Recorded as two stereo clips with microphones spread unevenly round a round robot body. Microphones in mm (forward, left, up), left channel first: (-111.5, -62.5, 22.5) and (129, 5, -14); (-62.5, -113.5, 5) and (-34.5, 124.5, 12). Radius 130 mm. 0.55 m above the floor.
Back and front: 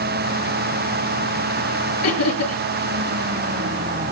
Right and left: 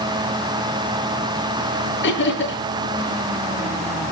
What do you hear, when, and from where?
2.0 s laughter: 140° right, 8.5 m